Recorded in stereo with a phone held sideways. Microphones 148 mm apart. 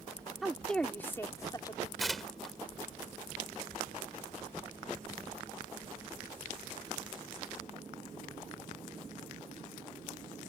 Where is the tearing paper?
Centre (ahead or behind).